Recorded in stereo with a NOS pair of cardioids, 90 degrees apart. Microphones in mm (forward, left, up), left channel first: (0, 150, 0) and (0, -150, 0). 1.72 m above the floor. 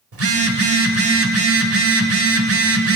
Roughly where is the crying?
No crying in this recording.